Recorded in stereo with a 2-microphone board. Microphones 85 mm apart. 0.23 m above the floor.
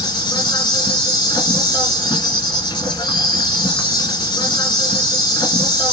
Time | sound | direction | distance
0.0 | an insect | 60° left (ahead or behind) | 1.4 m